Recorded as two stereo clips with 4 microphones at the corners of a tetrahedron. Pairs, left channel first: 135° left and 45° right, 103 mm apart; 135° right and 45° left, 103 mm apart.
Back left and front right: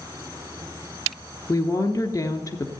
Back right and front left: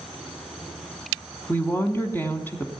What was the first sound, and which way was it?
A woman speaking, 165° left.